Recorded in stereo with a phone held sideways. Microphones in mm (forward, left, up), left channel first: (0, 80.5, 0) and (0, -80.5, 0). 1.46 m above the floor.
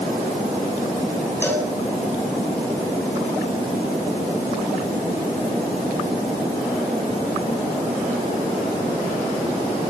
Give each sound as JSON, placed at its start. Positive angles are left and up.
{"t": 1.4, "sound": "a cowbell", "side_deg": 10, "distance_m": 7.0}